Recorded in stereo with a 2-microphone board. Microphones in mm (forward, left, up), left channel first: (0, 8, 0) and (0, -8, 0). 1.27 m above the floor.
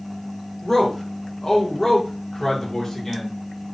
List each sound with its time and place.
0.6 s a man speaking: 25° left (ahead or behind), 1.0 m